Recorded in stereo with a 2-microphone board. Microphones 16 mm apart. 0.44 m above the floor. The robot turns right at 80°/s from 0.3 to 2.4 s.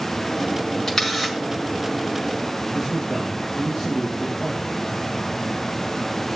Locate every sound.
0.9 s a camera shutter: 150° left, 4.5 m; by 1.4 s 170° right, 4.5 m
2.7 s a man speaking: 40° right (ahead or behind), 9.5 m